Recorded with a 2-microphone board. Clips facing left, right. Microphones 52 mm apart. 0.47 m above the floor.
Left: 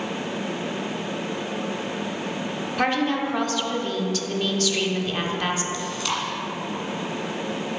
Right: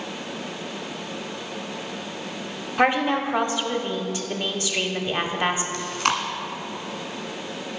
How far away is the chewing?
About 1.2 m.